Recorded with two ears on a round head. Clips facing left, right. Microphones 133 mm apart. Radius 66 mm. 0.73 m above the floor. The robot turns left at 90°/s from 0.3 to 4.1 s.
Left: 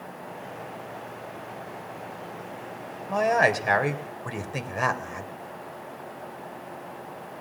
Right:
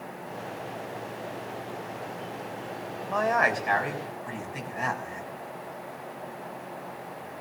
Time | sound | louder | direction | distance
3.1 | a man speaking | left 3 dB | 170° left | 3.5 m